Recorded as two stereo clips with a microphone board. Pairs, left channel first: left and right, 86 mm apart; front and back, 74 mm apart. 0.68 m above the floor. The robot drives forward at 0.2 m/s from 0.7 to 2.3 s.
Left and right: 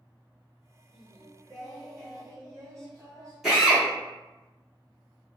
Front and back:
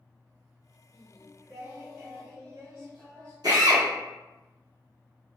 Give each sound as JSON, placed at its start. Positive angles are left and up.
{"t": 0.9, "sound": "singing", "azimuth_deg": -130, "distance_m": 1.1}
{"t": 3.4, "sound": "a drill", "azimuth_deg": -175, "distance_m": 1.3}